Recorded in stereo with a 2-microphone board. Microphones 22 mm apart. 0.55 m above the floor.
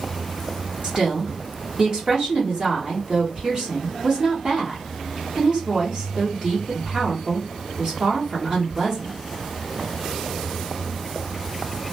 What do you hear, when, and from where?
0.8 s a woman speaking: 50° right (ahead or behind), 1.3 m